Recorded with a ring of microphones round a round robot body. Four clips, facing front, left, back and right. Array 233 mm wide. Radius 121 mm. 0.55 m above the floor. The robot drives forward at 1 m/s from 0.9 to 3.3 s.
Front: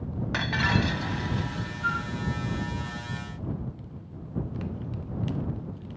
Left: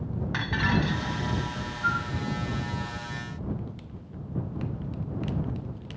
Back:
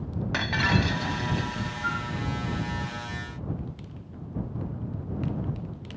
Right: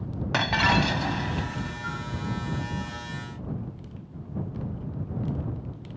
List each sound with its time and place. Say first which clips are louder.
0.3 s breaking glass: right 5 dB, back 1 dB; 95° right; by 1.7 s 110° right
1.8 s a flute: left 6 dB, front 2 dB; 115° left